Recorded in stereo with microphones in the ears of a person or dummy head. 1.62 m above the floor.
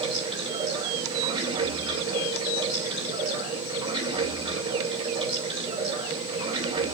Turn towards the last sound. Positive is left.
turn(degrees=-35)  # may be behind; listen again after turning